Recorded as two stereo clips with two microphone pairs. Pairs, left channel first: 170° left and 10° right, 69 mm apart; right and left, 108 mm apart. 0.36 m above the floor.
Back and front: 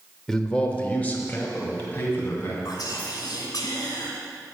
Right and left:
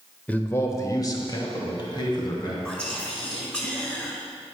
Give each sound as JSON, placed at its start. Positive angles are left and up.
{"t": 0.3, "sound": "a man speaking", "azimuth_deg": -120, "distance_m": 0.9}
{"t": 2.6, "sound": "whispering", "azimuth_deg": -170, "distance_m": 3.0}